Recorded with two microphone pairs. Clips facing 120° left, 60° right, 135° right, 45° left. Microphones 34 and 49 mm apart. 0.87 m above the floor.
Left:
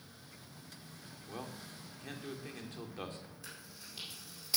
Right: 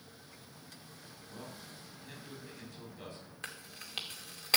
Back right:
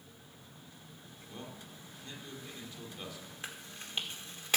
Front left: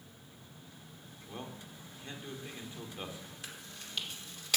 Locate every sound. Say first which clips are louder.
1.3 s a man speaking: left 3 dB, front left 2 dB; 105° left, 2.5 m
3.4 s chewing: right 5 dB, back right 2 dB; 80° right, 2 m